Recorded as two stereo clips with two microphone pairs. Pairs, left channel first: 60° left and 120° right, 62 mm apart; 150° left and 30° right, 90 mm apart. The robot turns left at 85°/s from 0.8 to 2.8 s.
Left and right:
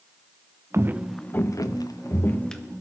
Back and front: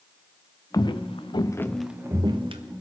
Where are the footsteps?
165° right, 0.8 m; by 2.6 s 30° right, 1.3 m.